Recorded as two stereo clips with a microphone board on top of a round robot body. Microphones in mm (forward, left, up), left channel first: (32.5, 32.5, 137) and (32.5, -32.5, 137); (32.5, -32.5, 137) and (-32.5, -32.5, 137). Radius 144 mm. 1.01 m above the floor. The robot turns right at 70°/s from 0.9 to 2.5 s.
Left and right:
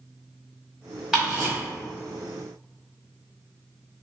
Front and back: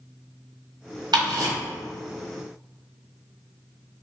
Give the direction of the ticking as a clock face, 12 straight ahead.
6 o'clock.